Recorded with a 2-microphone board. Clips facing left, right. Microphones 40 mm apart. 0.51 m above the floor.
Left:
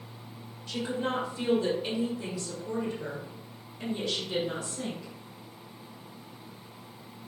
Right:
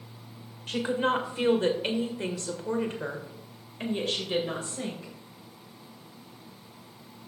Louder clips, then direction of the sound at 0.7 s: Right 5 dB; 50° right (ahead or behind).